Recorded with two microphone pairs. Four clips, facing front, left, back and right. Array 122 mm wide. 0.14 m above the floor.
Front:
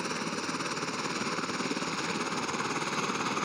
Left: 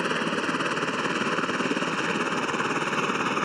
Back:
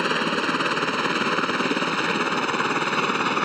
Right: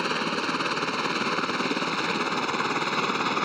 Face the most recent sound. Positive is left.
turn(degrees=-170)